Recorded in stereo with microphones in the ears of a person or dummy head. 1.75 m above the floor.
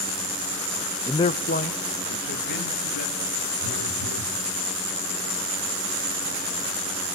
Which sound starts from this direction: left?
A phone buzzing, at 3.6 s.